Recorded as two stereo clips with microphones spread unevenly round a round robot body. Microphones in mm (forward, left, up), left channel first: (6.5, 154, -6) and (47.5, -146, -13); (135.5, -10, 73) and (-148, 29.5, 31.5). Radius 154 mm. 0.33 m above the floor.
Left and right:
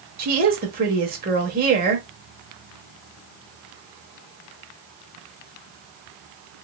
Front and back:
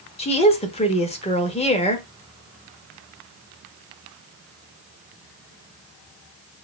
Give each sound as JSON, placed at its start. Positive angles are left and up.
{"t": 0.2, "sound": "a woman speaking", "azimuth_deg": -70, "distance_m": 0.9}